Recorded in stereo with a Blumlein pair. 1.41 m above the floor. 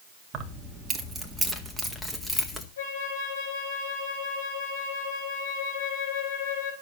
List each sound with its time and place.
0.3 s keys jangling: 25° right, 1.8 m; by 2.7 s 10° left, 2.5 m
2.8 s a flute: 65° left, 5.5 m